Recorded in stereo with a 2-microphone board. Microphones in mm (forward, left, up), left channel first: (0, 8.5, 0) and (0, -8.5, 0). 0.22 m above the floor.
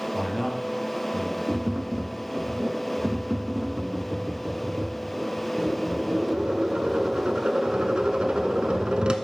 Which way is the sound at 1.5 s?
65° right (ahead or behind).